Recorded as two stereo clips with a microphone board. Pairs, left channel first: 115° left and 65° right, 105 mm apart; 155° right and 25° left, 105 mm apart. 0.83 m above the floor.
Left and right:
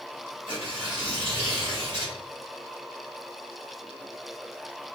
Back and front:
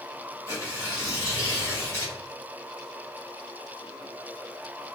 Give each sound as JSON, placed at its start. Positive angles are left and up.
{"t": 0.5, "sound": "tearing paper", "azimuth_deg": -100, "distance_m": 2.5}